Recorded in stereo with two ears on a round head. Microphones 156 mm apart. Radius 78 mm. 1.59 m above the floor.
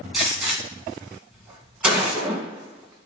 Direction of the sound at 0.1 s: 5° right (ahead or behind).